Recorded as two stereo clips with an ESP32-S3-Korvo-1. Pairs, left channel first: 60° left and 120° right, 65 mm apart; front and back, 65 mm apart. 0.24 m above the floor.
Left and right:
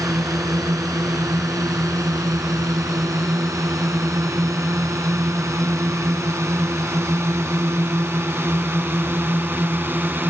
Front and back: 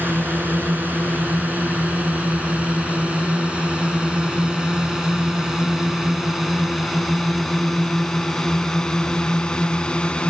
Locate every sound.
0.0 s a drone: 125° right; by 10.3 s 75° right